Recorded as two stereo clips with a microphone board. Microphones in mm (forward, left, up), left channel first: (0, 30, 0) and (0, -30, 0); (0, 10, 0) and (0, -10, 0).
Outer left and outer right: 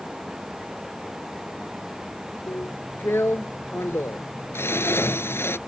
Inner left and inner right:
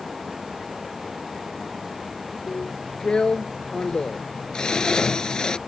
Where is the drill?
40° left (ahead or behind).